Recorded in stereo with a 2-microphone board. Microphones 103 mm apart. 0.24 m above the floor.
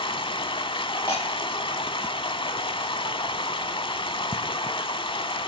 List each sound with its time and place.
0.0 s running water: 60° left (ahead or behind), 0.8 m
1.1 s breaking glass: 50° left (ahead or behind), 9 m